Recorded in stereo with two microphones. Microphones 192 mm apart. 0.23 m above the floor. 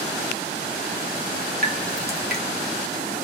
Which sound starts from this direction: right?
Dripping, at 1.6 s.